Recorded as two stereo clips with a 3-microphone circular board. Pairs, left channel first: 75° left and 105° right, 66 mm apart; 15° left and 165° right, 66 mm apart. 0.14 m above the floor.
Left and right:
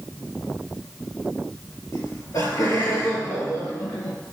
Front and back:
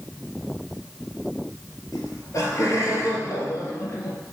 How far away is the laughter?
About 3 m.